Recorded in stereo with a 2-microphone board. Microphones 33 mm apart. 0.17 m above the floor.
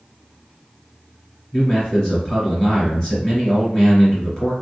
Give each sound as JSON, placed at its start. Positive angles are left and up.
{"t": 1.5, "sound": "a man speaking", "side_deg": 25, "distance_m": 1.6}